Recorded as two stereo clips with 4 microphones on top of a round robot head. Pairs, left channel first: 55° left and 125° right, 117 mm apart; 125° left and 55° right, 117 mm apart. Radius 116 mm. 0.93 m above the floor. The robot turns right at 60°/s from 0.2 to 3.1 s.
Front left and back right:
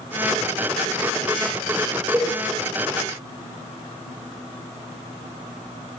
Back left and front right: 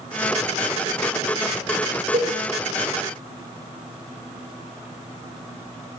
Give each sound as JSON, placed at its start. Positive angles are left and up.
{"t": 2.1, "sound": "a cowbell", "azimuth_deg": -60, "distance_m": 1.9}